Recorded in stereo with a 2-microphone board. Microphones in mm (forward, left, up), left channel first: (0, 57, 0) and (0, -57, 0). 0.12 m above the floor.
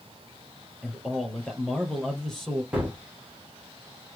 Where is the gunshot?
10° right (ahead or behind), 2.5 m.